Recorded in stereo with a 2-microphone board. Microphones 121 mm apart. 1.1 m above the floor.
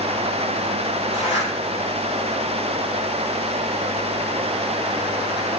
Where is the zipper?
60° left (ahead or behind), 8 m.